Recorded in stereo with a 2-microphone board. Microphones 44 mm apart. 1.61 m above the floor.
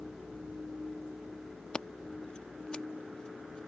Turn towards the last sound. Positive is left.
turn(degrees=20)  # may be behind; listen again after turning